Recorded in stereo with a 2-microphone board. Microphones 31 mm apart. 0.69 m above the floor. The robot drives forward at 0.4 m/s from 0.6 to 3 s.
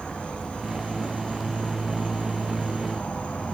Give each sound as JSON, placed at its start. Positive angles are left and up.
{"t": 0.0, "sound": "an insect", "side_deg": 50, "distance_m": 6.0}